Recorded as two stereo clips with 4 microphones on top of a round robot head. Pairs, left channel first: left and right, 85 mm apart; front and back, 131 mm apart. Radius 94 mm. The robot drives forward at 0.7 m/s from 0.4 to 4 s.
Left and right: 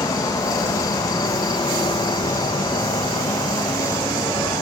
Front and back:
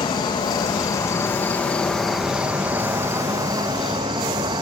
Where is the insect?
55° left, 2 m; by 4.6 s 130° left, 2.5 m.